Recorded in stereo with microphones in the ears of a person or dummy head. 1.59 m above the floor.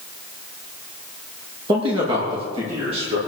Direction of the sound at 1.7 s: 30° right (ahead or behind).